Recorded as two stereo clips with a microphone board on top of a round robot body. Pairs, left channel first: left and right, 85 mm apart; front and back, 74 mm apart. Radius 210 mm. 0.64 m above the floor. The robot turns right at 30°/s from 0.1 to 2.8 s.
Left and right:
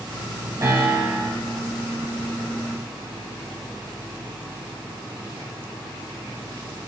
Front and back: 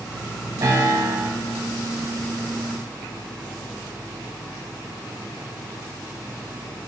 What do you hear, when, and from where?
0.6 s a piano: 140° right, 5.5 m; by 1.3 s 120° right, 5.5 m